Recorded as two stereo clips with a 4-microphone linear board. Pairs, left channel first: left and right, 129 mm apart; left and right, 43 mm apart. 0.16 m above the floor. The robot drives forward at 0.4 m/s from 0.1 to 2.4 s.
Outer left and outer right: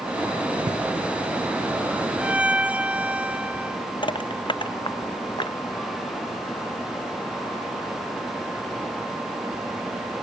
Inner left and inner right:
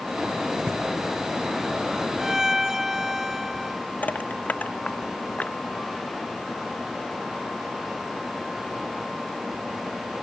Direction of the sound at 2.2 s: 10° right (ahead or behind).